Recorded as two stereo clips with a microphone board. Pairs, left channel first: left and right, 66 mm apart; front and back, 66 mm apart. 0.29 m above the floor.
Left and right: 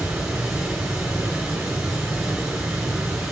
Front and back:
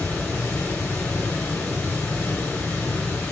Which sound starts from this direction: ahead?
Running water, at 0.0 s.